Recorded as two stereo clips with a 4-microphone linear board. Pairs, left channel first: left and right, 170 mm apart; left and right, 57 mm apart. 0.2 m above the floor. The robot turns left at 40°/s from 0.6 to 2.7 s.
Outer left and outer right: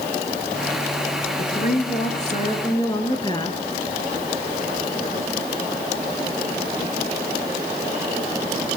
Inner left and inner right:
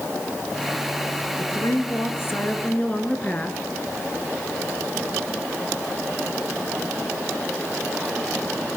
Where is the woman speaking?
85° left, 3 m; by 3.6 s 30° left, 3 m.